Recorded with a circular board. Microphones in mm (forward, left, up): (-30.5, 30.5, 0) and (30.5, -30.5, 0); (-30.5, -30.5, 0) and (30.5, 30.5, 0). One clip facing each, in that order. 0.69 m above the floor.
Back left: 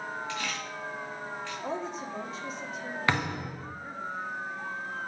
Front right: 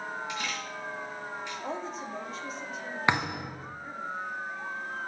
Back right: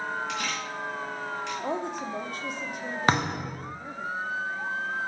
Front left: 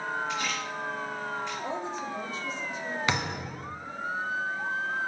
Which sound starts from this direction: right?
A thud, at 3.1 s.